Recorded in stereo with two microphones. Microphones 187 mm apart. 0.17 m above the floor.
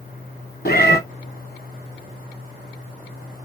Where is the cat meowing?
60° left (ahead or behind), 0.6 m.